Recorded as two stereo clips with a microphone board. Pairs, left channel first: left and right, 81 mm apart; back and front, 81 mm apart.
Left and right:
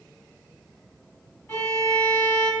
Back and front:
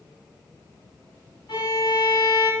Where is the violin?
150° left, 3 m.